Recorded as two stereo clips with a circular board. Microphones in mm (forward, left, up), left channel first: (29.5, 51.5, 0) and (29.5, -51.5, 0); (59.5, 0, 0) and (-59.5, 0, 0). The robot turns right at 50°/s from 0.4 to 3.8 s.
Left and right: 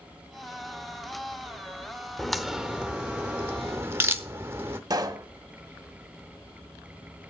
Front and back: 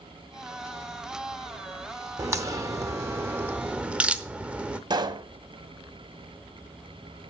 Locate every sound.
2.2 s a crack: 170° left, 0.8 m; by 4.8 s 110° right, 0.8 m
4.9 s a pop: 135° right, 0.8 m